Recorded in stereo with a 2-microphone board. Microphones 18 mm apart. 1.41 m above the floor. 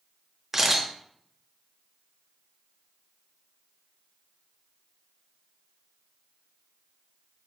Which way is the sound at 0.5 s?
15° right (ahead or behind).